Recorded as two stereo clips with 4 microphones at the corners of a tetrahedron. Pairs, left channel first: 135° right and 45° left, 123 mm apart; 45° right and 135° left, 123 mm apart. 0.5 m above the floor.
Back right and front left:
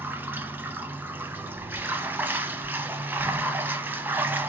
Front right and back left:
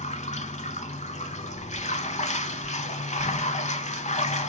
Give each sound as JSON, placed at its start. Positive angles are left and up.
{"t": 0.0, "sound": "running water", "azimuth_deg": -30, "distance_m": 0.7}